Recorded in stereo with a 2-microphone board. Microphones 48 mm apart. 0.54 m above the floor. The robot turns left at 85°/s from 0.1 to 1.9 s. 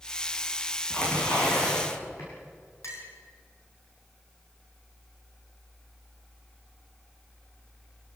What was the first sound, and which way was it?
Tearing paper, 160° left.